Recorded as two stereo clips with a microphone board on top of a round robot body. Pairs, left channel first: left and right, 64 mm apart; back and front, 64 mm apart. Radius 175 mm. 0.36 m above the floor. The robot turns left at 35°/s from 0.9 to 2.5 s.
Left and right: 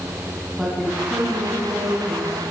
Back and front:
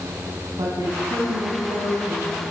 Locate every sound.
0.6 s a woman speaking: 5° right, 5 m; by 2.4 s 55° right, 5 m